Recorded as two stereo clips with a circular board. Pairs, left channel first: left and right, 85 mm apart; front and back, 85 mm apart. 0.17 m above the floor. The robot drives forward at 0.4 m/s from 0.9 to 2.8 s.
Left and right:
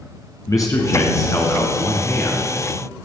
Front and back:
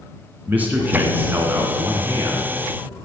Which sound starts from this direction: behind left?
A man speaking, at 0.5 s.